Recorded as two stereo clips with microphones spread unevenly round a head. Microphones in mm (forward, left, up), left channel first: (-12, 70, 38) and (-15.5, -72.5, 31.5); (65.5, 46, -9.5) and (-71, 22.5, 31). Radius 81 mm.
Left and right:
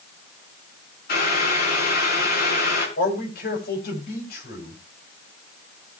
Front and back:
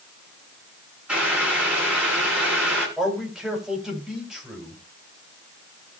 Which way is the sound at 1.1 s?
110° left.